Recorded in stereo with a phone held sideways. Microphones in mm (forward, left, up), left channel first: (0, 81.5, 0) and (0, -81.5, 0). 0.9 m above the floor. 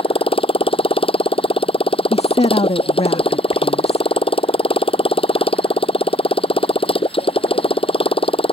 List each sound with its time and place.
0.0 s a motorcycle: 35° left (ahead or behind)
2.1 s a woman speaking: 40° left (ahead or behind)